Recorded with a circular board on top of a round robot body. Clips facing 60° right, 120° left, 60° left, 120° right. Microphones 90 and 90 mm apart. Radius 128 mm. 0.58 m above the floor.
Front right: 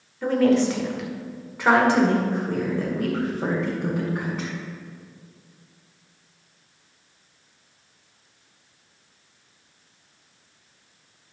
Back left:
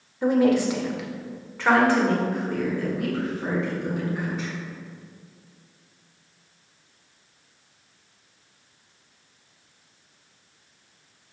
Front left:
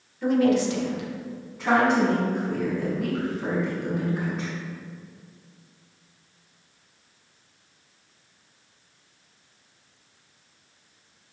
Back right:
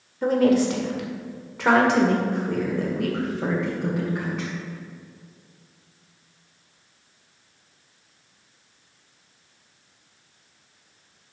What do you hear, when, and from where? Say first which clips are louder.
0.2 s a woman speaking: even, back right 2 dB; 170° right, 2.0 m; by 4.5 s 100° right, 3.5 m